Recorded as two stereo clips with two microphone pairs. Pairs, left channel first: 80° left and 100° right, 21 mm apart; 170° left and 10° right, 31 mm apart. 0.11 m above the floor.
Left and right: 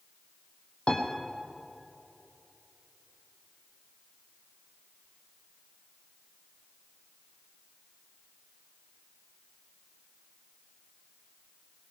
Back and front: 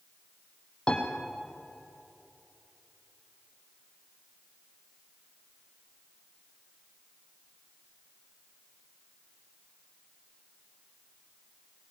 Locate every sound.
0.9 s a piano: 110° left, 2.5 m